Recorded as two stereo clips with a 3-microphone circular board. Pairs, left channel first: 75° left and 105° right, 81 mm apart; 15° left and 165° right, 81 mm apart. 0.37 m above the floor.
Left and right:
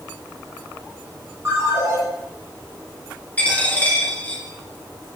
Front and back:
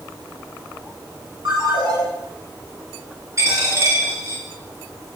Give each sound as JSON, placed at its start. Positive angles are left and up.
{"t": 1.4, "sound": "a ringtone", "azimuth_deg": -165, "distance_m": 3.5}
{"t": 3.4, "sound": "a dropped coin", "azimuth_deg": 145, "distance_m": 2.5}